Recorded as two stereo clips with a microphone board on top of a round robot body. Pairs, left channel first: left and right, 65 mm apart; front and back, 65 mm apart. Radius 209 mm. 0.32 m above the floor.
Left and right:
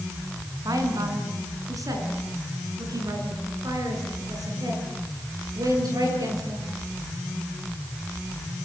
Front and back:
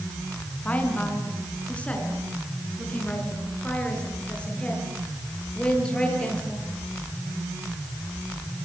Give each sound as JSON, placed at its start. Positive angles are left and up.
{"t": 0.7, "sound": "a woman speaking", "azimuth_deg": -70, "distance_m": 5.5}